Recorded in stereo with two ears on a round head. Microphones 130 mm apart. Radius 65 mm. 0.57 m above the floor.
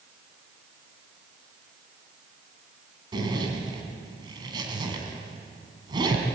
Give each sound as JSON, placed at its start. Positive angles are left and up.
{"t": 3.1, "sound": "a zipper", "side_deg": -30, "distance_m": 3.5}